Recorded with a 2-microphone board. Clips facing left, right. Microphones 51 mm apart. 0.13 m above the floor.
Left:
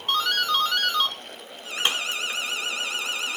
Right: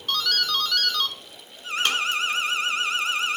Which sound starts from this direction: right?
An alarm, at 1.6 s.